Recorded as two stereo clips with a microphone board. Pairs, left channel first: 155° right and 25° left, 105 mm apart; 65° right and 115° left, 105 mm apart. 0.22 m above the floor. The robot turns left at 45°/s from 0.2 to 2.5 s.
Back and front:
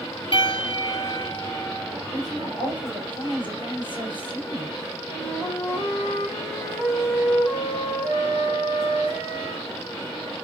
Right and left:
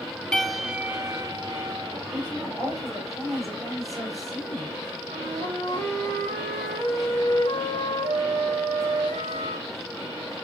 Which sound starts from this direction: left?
A flute, at 5.1 s.